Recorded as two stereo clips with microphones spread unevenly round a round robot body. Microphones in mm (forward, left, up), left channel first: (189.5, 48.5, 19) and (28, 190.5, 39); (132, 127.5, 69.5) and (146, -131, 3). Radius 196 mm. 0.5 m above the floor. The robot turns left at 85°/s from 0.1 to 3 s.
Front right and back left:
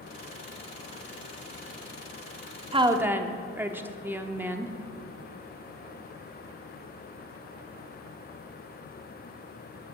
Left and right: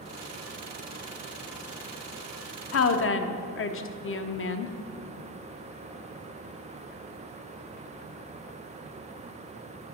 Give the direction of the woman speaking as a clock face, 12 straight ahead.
9 o'clock.